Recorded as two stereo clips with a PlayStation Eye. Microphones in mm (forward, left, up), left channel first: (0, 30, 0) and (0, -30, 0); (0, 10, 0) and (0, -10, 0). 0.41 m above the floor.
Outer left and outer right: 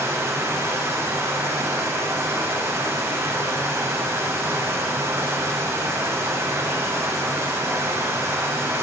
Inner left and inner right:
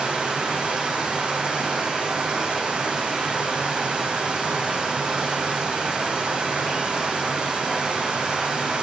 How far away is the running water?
About 9 m.